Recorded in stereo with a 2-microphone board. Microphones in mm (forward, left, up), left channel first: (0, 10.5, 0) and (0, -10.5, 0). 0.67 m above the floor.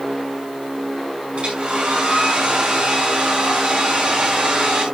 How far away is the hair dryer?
About 5.5 m.